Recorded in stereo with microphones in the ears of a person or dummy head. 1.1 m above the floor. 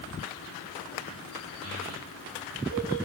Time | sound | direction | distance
1.6 | a child speaking | 75° right (ahead or behind) | 5 m